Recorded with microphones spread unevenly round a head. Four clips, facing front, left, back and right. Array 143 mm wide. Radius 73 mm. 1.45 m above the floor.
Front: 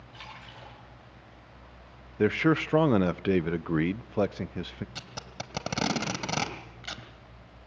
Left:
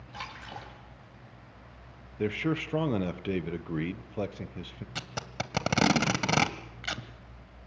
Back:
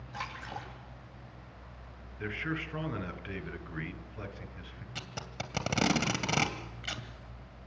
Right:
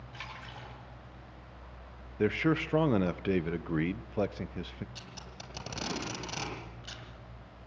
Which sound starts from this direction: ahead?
A man speaking, at 2.2 s.